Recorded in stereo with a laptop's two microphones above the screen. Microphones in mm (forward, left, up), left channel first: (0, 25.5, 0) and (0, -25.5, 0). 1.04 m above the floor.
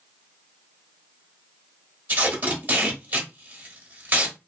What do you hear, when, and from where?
2.1 s tape being pulled: 40° right (ahead or behind), 1.1 m